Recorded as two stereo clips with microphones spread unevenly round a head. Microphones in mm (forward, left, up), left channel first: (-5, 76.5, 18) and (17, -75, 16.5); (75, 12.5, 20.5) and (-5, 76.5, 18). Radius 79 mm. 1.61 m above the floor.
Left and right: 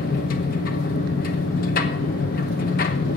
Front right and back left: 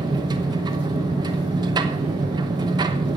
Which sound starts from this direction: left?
A machine running, at 0.0 s.